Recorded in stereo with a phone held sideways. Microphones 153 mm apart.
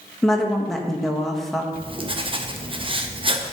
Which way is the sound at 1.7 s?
35° right (ahead or behind).